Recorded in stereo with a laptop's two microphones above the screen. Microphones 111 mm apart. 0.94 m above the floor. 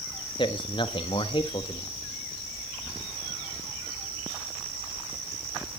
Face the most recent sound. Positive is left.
turn(degrees=45)  # may be behind; listen again after turning